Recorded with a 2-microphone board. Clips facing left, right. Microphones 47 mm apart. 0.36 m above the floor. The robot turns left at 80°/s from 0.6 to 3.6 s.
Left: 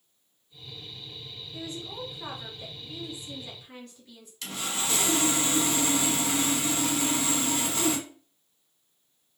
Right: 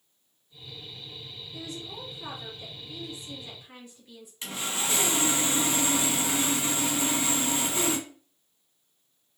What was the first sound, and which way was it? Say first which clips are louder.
A woman speaking: left 2 dB; 145° left.